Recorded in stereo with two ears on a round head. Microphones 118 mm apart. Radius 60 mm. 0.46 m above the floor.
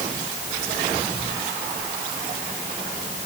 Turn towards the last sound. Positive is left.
No sound to turn to.